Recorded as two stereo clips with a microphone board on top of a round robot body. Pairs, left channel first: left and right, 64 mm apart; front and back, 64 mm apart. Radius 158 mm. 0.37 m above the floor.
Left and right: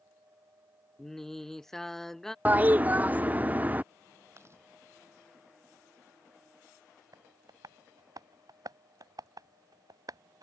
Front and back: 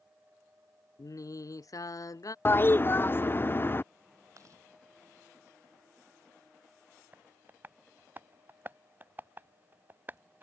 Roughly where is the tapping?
Behind right.